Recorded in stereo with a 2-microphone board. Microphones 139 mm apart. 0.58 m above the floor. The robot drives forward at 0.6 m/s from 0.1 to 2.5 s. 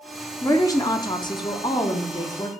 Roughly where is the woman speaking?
Left.